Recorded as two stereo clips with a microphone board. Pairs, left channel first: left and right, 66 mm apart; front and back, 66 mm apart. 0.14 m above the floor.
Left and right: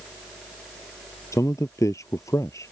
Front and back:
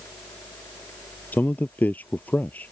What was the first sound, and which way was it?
A man speaking, 60° left.